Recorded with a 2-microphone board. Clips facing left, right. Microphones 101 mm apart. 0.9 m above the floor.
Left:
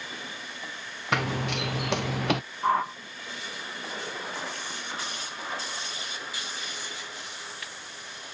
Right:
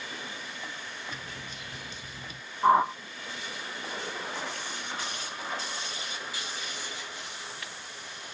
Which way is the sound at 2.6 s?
20° right (ahead or behind).